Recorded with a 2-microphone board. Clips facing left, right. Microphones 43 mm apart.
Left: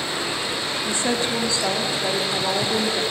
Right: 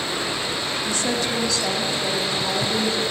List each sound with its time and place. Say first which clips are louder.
0.8 s a woman speaking: left 2 dB; 25° left (ahead or behind), 0.8 m